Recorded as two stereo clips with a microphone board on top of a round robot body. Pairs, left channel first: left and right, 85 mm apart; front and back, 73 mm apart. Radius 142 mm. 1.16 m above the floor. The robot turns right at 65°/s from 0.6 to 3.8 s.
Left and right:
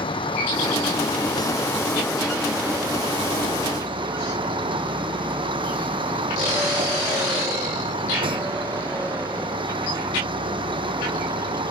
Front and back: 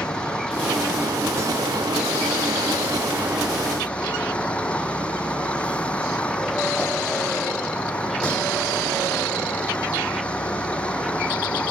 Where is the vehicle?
80° left; by 11.7 s 75° right.